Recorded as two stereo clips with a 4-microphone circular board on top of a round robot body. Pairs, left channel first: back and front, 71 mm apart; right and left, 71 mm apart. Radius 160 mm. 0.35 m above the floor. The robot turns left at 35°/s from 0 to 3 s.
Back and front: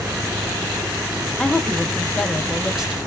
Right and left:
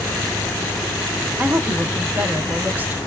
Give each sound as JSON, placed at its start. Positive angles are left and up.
{"t": 1.4, "sound": "a woman speaking", "azimuth_deg": 125, "distance_m": 0.8}